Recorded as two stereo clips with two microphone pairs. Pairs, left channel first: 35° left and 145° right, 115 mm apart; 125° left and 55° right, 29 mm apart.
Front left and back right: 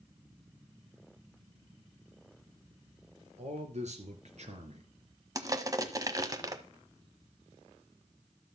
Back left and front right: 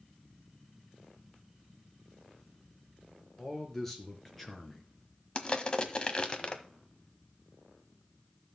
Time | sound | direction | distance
3.4 | a man speaking | 150° right | 4.5 m
5.3 | crushing | 170° left | 1.3 m